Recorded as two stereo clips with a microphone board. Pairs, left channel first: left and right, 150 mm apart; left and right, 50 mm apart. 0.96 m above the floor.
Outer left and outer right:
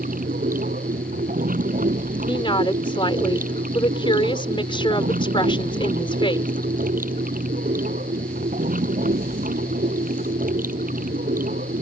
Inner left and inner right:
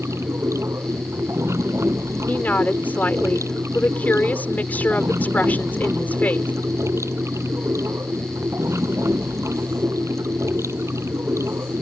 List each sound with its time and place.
0.0 s running water: 60° right (ahead or behind)
2.3 s a woman speaking: 35° left (ahead or behind)